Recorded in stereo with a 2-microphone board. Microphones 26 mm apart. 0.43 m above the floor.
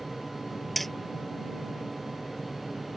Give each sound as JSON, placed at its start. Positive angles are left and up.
{"t": 0.8, "sound": "hammering", "side_deg": 5}